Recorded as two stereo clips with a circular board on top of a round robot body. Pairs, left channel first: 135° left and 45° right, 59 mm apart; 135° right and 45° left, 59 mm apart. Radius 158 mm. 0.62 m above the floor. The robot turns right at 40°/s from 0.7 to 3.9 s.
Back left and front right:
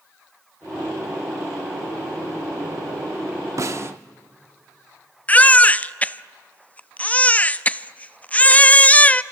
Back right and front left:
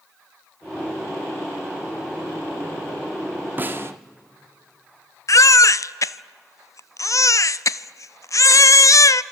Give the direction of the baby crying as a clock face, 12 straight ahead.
5 o'clock.